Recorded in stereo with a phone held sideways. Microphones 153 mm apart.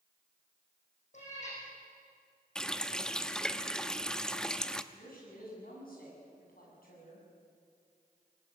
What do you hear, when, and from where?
1.1 s a cat meowing: 50° left (ahead or behind), 8 m
2.5 s a running tap: 5° left (ahead or behind), 0.8 m
4.9 s a woman speaking: 75° left (ahead or behind), 8 m